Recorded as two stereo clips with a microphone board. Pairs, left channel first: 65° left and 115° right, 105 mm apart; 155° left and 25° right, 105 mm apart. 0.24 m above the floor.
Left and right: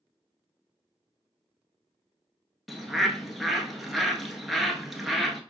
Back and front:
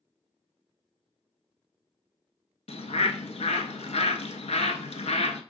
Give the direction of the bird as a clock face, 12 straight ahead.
7 o'clock.